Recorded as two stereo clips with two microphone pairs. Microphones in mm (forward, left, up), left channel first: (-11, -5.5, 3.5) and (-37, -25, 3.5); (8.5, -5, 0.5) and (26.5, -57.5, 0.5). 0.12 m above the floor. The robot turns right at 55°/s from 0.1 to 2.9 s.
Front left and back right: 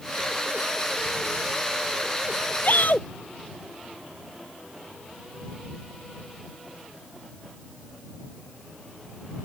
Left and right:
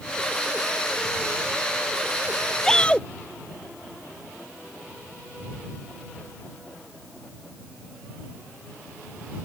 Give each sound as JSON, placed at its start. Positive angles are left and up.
{"t": 2.6, "sound": "a shout", "azimuth_deg": 25}